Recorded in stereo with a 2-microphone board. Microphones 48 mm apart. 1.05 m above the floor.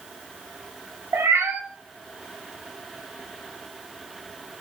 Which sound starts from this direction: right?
A cat meowing, at 1.1 s.